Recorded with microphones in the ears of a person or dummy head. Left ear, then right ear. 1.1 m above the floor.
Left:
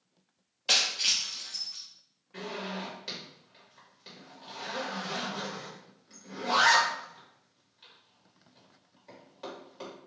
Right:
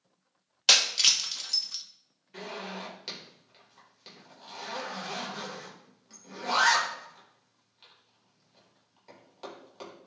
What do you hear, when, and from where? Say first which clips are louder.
0.7 s breaking glass: right 4 dB; 65° right (ahead or behind), 0.8 m
2.3 s a zipper: left 1 dB; 25° right (ahead or behind), 3 m